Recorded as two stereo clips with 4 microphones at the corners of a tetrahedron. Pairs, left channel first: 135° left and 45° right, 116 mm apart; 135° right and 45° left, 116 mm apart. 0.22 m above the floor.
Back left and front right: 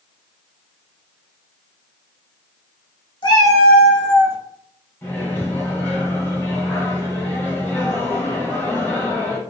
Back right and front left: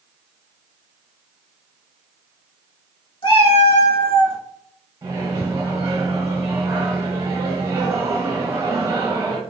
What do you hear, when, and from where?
3.2 s a cat meowing: straight behind, 0.6 m; by 4.4 s 110° right, 0.6 m
5.0 s a microwave: 80° left, 1.0 m